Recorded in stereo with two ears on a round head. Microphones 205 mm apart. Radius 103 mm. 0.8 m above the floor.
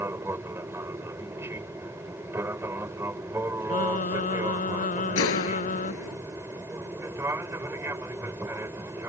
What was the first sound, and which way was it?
An aircraft, 10° right (ahead or behind).